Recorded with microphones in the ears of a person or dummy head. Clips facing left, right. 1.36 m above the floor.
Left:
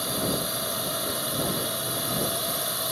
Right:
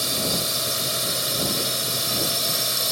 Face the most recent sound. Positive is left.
turn(degrees=-35)  # may be behind; listen again after turning